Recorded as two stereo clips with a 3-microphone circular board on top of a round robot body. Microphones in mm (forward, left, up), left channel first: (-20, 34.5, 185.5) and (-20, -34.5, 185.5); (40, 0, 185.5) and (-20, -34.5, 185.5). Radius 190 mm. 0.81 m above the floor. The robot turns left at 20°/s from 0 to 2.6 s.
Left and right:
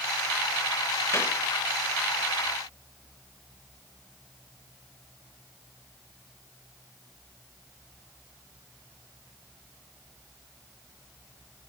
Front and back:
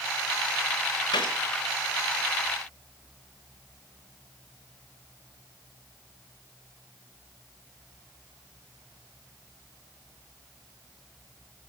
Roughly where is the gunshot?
Ahead left.